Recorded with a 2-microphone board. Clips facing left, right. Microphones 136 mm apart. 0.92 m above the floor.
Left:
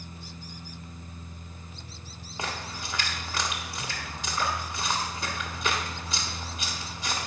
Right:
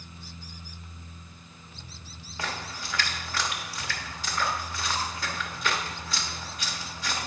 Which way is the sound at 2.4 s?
20° left (ahead or behind).